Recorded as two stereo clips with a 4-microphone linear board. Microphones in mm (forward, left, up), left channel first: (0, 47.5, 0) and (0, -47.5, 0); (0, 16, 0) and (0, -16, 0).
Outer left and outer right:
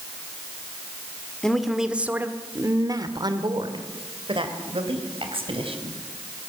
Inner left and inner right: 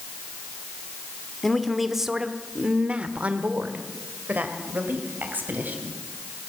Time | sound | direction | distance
1.4 | a woman speaking | 5° left (ahead or behind) | 1.5 m